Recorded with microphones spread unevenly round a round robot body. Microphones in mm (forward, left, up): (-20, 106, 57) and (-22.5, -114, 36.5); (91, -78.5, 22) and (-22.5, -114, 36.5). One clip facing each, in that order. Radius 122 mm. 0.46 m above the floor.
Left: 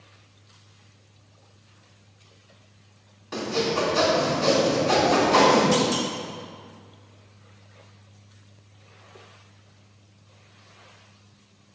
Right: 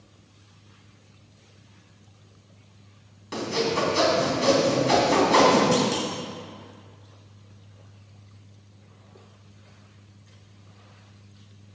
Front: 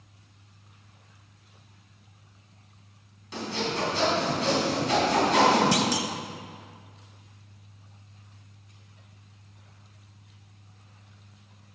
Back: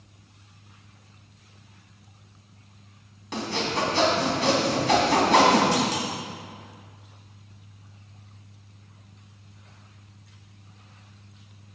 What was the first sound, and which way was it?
Sawing, 140° right.